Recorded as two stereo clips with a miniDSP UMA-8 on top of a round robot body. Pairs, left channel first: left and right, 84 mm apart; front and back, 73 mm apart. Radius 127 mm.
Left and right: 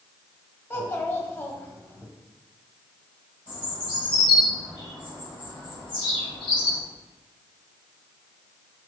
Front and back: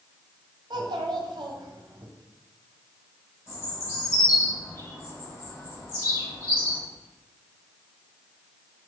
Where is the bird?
60° left, 4 m.